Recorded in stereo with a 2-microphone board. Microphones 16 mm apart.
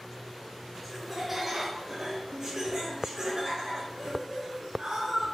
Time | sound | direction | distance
0.8 | laughter | 5° right (ahead or behind) | 0.9 m